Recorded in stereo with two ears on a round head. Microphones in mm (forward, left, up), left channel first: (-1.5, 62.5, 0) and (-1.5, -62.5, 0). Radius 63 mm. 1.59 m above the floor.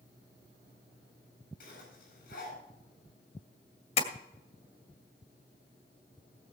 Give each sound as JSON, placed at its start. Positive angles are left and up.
{"t": 1.6, "sound": "a zipper", "side_deg": 70, "distance_m": 8.5}
{"t": 4.0, "sound": "tapping", "side_deg": 50, "distance_m": 2.0}